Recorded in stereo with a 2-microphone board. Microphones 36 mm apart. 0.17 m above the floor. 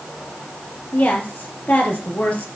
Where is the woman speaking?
50° left (ahead or behind), 4 m.